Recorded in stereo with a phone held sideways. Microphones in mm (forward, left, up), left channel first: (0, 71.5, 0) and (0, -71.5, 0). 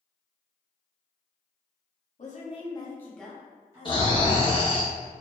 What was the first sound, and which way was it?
A woman speaking, 60° left (ahead or behind).